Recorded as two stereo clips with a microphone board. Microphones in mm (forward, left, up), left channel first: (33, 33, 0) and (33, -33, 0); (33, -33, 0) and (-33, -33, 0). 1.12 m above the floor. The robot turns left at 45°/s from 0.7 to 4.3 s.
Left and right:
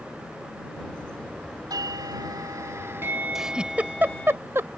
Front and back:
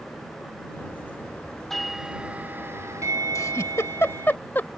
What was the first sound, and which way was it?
A doorbell, 85° right.